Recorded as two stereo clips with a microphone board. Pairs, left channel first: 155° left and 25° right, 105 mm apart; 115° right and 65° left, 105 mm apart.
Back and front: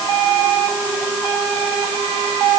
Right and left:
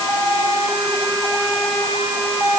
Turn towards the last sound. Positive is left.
No sound to turn to.